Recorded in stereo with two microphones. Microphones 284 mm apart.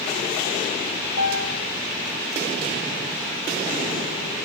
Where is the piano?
65° left (ahead or behind), 1.6 m.